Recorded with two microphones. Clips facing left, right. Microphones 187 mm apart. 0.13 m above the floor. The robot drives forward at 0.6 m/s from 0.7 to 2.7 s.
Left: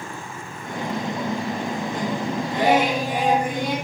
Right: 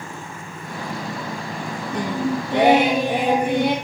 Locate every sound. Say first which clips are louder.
1.9 s singing: right 7 dB; 70° right (ahead or behind), 3.5 m